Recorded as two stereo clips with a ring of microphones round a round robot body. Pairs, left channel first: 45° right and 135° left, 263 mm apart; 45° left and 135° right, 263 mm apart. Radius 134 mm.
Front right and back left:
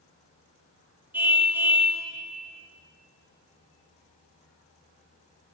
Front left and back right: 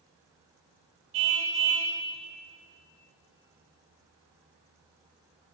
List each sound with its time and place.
1.1 s a car horn: 140° right, 5 m